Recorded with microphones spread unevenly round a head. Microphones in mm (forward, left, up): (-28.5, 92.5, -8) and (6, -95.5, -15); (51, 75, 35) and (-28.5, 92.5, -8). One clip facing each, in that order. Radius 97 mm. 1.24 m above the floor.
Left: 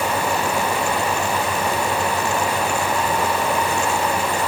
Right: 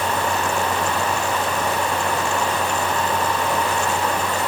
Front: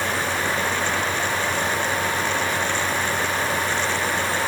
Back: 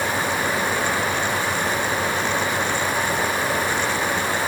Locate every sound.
Only background noise.